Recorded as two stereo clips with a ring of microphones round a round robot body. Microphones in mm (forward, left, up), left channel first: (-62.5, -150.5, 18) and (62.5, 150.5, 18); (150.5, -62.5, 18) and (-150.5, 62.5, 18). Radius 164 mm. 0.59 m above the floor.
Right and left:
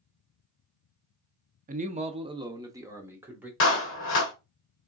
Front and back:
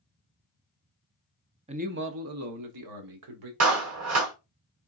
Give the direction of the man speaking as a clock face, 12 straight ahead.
9 o'clock.